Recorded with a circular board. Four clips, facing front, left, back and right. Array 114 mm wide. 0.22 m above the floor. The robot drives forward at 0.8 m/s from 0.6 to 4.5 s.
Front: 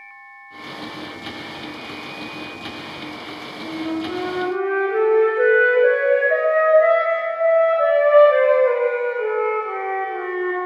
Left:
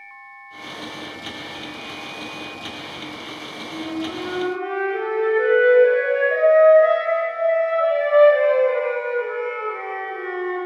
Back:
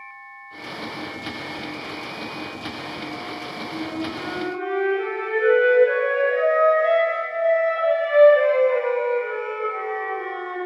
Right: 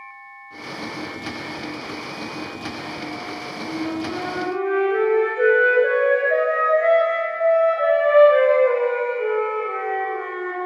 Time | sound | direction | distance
3.6 | a flute | 25° right | 9.5 m